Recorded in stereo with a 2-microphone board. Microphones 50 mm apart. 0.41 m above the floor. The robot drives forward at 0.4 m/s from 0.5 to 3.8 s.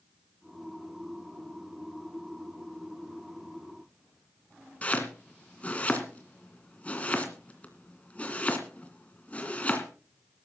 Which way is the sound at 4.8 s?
30° left (ahead or behind).